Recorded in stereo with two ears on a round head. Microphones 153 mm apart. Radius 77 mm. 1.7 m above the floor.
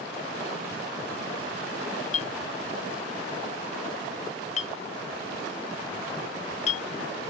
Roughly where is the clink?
Left.